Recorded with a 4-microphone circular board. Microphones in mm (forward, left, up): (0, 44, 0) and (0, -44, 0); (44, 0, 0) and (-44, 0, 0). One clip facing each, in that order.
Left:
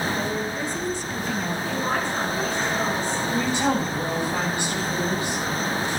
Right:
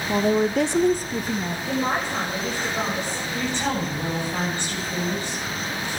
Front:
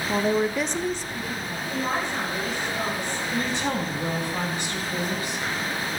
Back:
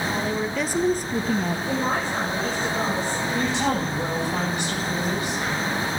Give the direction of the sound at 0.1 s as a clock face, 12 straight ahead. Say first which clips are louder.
Right 6 dB, front 3 dB; 2 o'clock.